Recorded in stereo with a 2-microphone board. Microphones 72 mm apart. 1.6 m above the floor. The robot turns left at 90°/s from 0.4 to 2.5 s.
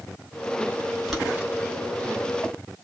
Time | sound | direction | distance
1.1 | boiling | centre (ahead or behind) | 1.0 m